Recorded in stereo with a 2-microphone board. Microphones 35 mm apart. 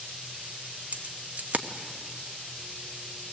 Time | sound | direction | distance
0.9 | keys jangling | 45° right (ahead or behind) | 0.9 m